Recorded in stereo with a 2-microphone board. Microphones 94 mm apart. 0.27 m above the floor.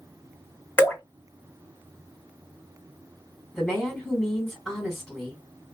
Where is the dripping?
20° left (ahead or behind), 1.4 m.